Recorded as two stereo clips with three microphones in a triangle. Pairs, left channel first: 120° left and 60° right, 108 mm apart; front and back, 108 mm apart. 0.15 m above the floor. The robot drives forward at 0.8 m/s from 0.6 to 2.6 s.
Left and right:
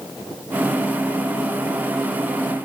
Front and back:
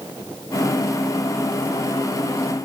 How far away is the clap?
I don't hear a clap.